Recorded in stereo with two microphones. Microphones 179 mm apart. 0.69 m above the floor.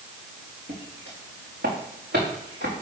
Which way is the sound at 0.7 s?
70° right (ahead or behind).